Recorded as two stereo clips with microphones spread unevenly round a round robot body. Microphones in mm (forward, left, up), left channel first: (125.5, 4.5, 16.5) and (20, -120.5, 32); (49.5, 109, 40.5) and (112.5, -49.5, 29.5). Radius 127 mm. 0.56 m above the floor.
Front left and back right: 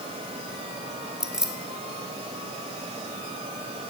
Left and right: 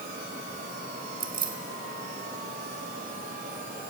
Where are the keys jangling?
45° right, 2.0 m.